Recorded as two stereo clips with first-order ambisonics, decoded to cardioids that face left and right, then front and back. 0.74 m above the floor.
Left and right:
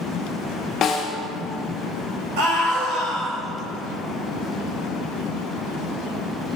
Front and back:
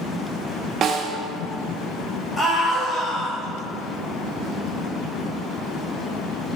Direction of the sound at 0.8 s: 140° left.